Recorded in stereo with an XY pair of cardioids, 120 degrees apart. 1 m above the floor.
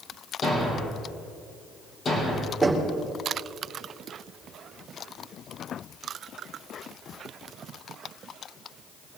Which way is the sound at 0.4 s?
40° left.